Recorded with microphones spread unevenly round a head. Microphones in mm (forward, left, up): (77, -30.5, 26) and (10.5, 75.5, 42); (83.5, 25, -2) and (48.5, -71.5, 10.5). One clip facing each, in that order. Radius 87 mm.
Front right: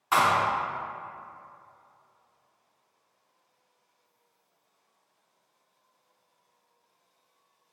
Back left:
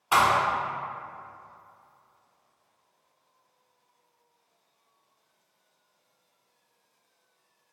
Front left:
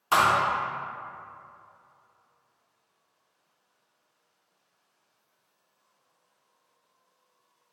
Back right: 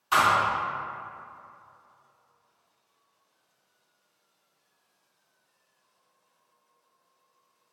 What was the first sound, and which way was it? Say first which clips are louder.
A thud: back left 1 dB, even; 75° left.